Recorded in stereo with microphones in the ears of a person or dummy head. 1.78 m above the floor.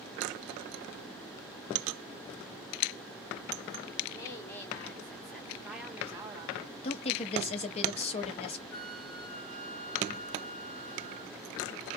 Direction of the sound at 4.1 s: 20° left (ahead or behind).